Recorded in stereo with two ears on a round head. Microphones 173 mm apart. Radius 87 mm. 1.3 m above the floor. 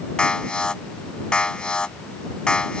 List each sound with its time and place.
0.2 s an alarm: 5° left (ahead or behind)